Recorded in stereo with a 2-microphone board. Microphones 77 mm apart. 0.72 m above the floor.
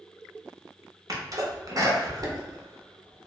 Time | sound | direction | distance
1.1 | a sneeze | 45° right (ahead or behind) | 0.6 m